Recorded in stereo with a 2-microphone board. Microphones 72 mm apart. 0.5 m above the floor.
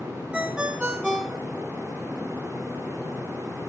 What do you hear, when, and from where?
0.3 s a ringtone: 10° right (ahead or behind), 0.5 m